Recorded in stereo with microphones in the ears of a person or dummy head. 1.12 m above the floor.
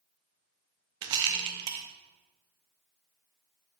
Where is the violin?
I don't hear a violin.